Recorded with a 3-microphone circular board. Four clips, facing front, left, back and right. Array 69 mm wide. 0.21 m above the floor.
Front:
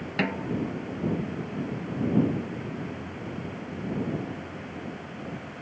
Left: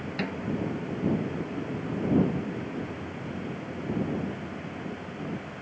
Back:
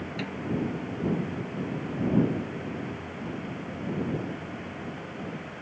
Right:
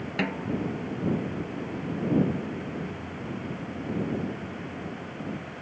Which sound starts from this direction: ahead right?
A snare drum, at 0.2 s.